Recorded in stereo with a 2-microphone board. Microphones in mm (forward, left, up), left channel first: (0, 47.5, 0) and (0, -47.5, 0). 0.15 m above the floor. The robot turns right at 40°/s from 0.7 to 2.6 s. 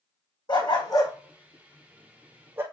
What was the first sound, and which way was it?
A dog barking, 50° left (ahead or behind).